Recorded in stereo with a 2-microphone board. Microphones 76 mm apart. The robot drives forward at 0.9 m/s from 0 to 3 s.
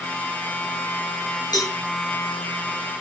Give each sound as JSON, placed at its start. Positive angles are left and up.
{"t": 1.5, "sound": "a cowbell", "side_deg": 60, "distance_m": 5.5}